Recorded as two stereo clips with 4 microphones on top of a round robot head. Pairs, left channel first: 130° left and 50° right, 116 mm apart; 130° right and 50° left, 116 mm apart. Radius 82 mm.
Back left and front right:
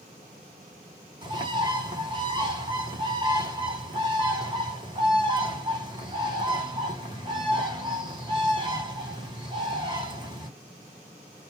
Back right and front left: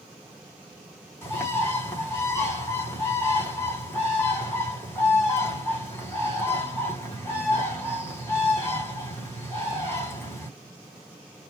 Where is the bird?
70° right, 1.7 m.